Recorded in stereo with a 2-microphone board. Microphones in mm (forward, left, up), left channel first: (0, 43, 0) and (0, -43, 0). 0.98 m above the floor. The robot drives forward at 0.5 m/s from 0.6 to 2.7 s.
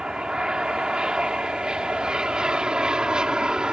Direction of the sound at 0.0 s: 10° right (ahead or behind).